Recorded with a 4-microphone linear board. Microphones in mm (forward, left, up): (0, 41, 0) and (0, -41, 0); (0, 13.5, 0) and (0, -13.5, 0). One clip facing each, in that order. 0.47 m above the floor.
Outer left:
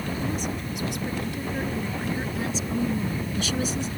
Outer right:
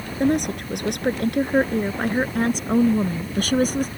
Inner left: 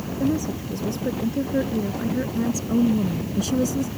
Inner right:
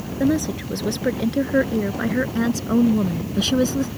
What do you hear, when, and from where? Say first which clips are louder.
0.2 s a woman speaking: outer right 8 dB, inner right 4 dB; 70° right (ahead or behind); by 3.9 s 50° right (ahead or behind)